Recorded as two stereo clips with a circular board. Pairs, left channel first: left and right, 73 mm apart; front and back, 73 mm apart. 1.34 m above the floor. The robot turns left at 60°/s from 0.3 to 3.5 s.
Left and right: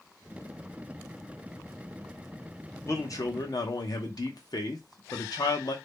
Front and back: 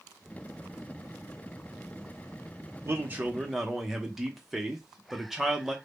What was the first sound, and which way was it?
A man speaking, 135° left.